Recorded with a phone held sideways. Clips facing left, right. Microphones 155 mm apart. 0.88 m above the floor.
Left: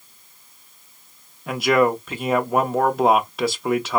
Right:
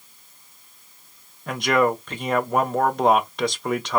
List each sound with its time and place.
1.5 s a man speaking: 5° left (ahead or behind), 0.6 m